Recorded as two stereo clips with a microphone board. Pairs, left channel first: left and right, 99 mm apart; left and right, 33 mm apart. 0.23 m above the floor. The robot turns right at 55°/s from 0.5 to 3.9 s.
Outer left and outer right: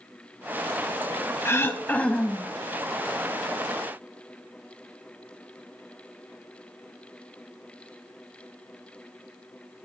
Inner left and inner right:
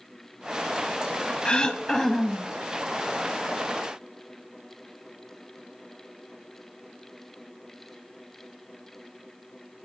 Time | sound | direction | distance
1.4 | throat clearing | 120° left | 0.6 m